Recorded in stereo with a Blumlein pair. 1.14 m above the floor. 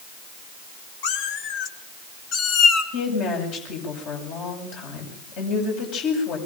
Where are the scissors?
I don't hear scissors.